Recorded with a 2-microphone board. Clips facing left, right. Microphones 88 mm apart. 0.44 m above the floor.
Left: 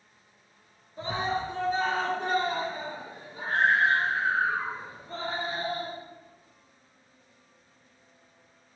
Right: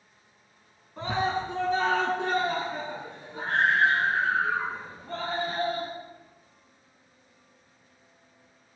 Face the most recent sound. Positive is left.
turn(degrees=-65)  # may be behind; listen again after turning